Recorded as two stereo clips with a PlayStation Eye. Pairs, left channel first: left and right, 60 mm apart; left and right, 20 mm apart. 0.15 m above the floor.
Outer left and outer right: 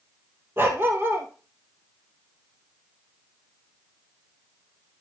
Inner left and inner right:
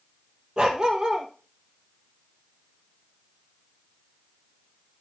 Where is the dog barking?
40° right (ahead or behind), 1.6 m.